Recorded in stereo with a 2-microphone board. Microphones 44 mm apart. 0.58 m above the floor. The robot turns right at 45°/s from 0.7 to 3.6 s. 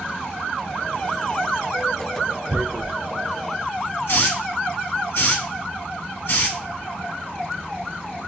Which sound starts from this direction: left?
A hiss, at 4.1 s.